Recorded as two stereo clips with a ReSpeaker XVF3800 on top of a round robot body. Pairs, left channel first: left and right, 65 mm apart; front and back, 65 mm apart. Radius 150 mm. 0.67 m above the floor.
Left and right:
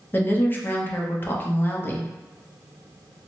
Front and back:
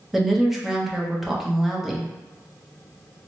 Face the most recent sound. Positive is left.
turn(degrees=95)